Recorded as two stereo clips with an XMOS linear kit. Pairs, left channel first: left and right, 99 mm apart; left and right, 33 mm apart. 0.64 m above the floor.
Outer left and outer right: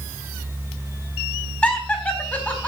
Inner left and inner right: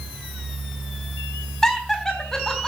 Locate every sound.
1.6 s laughter: 15° left (ahead or behind), 4 m